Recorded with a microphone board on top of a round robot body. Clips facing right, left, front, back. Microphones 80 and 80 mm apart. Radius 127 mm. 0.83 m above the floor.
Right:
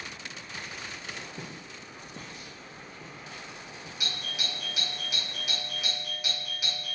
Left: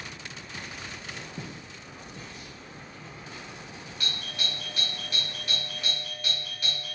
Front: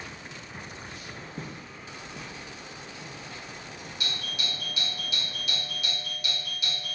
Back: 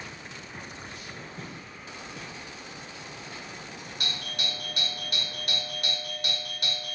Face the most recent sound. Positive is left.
turn(degrees=-170)